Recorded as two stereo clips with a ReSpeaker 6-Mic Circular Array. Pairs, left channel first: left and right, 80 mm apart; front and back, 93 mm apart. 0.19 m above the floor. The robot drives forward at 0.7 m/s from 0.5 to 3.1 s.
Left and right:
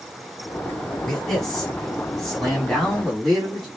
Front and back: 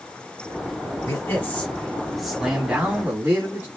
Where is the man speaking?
10° left, 1.5 m; by 3.7 s 170° left, 1.4 m.